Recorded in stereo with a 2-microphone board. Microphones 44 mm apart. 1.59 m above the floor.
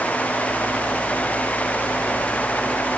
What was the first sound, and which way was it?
Only background noise.